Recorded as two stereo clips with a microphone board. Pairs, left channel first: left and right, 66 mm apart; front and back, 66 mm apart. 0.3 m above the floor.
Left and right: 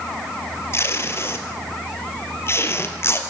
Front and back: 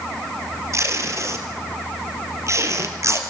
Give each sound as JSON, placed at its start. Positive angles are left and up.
{"t": 0.7, "sound": "tape being pulled", "azimuth_deg": 140, "distance_m": 2.0}